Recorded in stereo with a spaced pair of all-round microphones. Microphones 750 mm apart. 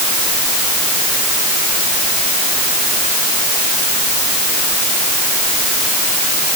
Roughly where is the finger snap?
No finger snap in this recording.